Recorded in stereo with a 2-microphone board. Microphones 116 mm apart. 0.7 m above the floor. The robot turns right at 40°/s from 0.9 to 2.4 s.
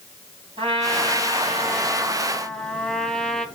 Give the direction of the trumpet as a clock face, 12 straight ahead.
2 o'clock.